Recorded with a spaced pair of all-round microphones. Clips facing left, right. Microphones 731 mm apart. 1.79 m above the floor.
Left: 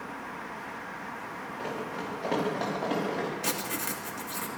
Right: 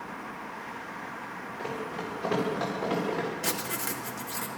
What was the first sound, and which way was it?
Running footsteps, 35° right (ahead or behind).